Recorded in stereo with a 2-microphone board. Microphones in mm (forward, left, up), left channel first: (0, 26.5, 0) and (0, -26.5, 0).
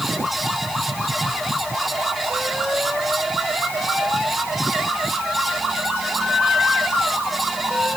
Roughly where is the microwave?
I don't hear a microwave.